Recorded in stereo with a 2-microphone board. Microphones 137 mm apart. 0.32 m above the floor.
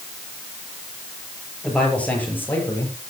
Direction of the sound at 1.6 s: 5° left (ahead or behind).